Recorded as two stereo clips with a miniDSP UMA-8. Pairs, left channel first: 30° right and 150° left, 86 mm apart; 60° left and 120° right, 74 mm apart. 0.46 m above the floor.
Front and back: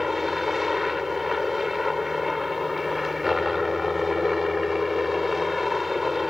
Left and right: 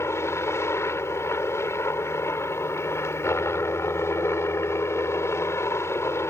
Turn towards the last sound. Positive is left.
turn(degrees=60)